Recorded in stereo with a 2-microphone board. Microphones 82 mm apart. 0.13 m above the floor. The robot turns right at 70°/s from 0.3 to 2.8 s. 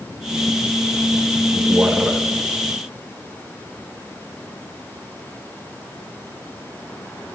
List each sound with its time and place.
1.6 s a man speaking: 20° right (ahead or behind), 1.2 m; by 2.2 s 5° right (ahead or behind), 1.2 m